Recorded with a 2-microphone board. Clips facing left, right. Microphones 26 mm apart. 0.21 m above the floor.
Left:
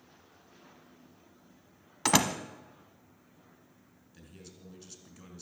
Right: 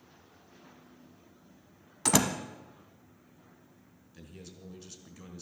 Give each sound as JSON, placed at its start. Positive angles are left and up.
{"t": 2.0, "sound": "a door slam", "side_deg": 25, "distance_m": 0.9}
{"t": 4.1, "sound": "a man speaking", "side_deg": -5, "distance_m": 3.0}